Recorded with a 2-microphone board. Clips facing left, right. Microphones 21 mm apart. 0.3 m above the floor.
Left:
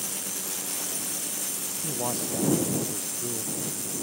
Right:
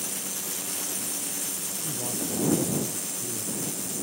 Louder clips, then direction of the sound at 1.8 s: Left 3 dB; 50° left (ahead or behind).